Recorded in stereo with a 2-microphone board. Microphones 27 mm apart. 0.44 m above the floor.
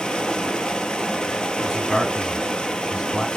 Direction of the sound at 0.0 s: 25° left (ahead or behind).